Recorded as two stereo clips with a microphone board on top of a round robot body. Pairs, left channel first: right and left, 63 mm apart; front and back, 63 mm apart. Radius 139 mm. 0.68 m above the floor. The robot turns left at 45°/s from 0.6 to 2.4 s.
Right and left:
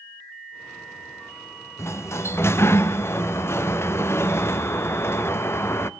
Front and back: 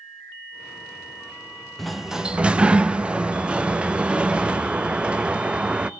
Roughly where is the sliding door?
Right.